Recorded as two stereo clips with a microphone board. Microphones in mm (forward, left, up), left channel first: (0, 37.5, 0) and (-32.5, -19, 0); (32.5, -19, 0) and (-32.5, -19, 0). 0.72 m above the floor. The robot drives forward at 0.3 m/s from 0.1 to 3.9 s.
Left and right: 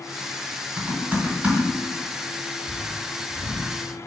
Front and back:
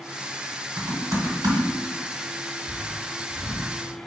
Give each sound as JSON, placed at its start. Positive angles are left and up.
{"t": 0.8, "sound": "typing on a keyboard", "azimuth_deg": 170, "distance_m": 1.6}